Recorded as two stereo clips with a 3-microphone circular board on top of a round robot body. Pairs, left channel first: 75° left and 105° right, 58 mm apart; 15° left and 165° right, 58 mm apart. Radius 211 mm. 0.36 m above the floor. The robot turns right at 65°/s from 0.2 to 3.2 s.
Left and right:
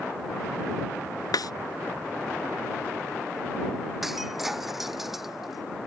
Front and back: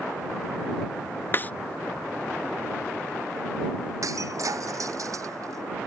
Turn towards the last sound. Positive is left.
turn(degrees=170)